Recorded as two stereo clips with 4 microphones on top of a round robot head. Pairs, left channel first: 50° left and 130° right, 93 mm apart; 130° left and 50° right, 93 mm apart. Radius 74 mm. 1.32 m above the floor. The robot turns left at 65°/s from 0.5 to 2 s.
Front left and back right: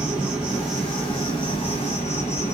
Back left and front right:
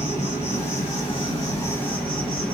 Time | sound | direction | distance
0.0 | an insect | 155° left | 1.7 m